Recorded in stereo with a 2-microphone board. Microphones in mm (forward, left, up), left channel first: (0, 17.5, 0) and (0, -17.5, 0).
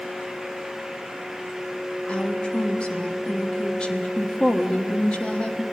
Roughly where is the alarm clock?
No alarm clock in this recording.